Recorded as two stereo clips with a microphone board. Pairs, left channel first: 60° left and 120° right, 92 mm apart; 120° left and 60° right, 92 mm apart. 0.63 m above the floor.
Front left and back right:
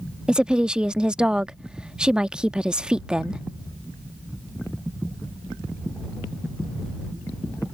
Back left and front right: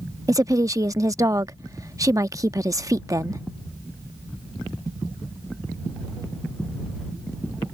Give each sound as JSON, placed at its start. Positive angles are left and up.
{"t": 0.3, "sound": "a woman speaking", "azimuth_deg": -45}